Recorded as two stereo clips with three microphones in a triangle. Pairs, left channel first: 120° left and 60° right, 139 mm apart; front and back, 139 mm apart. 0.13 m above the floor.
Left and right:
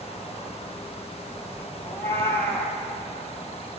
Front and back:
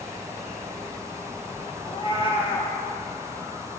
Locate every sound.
1.8 s a cat meowing: 50° left, 1.8 m